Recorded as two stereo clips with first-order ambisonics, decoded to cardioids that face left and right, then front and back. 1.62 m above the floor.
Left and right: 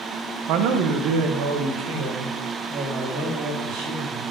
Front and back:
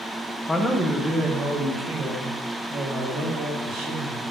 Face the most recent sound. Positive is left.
turn(degrees=-125)